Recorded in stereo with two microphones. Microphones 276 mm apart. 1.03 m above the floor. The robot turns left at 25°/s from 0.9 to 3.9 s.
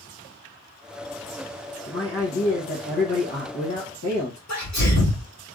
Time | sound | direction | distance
1.9 | a man speaking | 130° left | 0.9 m
4.5 | a sneeze | 70° left (ahead or behind) | 2 m